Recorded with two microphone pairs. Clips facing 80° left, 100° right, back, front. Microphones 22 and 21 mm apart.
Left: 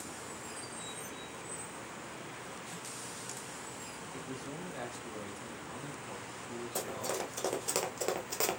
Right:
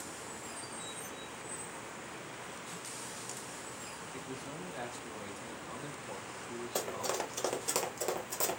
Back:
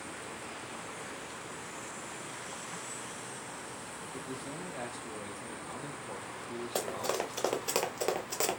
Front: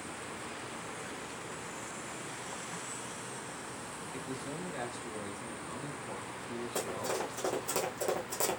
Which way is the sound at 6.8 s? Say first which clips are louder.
Right 2 dB, back 2 dB; 160° right.